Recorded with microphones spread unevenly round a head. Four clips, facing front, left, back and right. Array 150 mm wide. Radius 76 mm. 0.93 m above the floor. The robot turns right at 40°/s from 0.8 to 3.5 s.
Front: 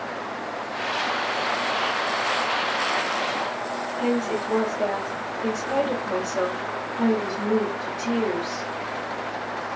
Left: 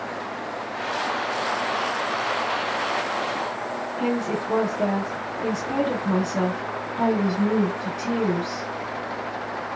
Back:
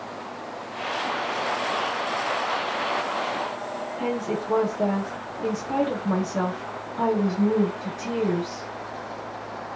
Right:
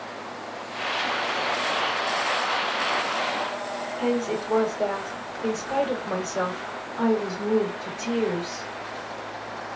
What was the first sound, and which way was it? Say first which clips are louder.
A woman speaking: even, front 3 dB; 130° left.